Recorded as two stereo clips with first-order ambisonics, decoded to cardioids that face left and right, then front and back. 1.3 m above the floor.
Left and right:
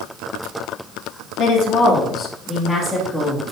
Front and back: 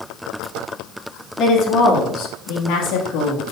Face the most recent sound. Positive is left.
turn(degrees=-10)